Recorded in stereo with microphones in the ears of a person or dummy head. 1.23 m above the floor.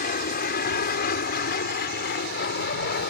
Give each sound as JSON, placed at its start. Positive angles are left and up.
{"t": 0.0, "sound": "an aircraft", "side_deg": 50}